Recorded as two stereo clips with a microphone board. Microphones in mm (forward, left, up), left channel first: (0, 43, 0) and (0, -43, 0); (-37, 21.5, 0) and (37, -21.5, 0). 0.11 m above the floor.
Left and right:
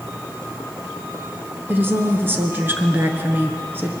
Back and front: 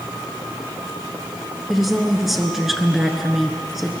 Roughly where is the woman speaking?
Behind right.